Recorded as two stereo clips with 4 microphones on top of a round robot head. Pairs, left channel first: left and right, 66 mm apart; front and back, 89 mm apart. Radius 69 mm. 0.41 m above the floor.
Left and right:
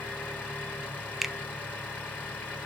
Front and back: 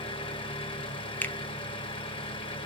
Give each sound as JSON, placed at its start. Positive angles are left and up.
{"t": 0.0, "sound": "an engine running", "azimuth_deg": 25, "distance_m": 4.0}
{"t": 1.2, "sound": "a finger snap", "azimuth_deg": -20, "distance_m": 0.6}